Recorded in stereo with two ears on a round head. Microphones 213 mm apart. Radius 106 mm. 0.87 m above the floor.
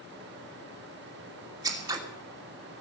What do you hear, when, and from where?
1.6 s scissors: 15° right (ahead or behind), 2.5 m